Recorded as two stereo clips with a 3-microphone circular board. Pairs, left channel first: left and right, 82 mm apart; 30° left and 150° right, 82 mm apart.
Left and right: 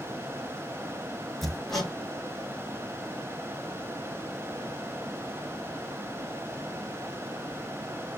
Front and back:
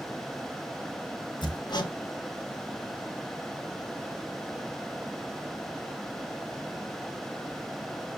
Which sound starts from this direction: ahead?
Hammering, at 1.4 s.